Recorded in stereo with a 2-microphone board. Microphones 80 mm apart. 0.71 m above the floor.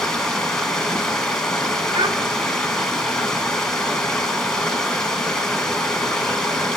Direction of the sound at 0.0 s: 10° left (ahead or behind).